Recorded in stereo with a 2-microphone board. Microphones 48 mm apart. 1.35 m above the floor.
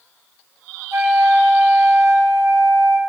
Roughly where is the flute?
Right.